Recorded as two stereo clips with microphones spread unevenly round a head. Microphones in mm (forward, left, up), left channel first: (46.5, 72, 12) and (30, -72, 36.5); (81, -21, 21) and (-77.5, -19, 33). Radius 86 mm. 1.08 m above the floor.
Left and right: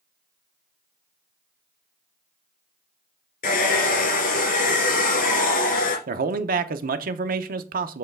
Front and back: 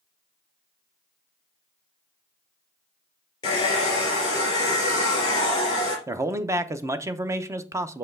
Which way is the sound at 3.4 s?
65° left.